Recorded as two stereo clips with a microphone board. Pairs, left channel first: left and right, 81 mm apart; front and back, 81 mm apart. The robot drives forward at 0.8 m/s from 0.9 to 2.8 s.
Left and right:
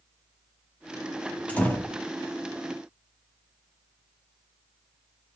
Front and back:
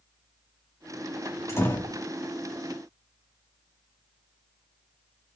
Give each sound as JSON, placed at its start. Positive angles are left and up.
{"t": 1.5, "sound": "a door slam", "azimuth_deg": 25, "distance_m": 1.3}